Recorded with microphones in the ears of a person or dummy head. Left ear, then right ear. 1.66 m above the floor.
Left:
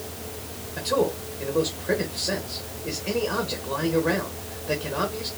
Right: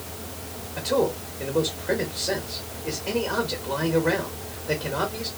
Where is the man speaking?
5° right (ahead or behind), 1.3 m.